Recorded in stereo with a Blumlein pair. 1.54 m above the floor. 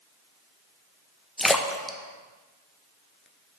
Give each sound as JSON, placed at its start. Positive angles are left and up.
{"t": 1.4, "sound": "a splash", "azimuth_deg": 5, "distance_m": 0.6}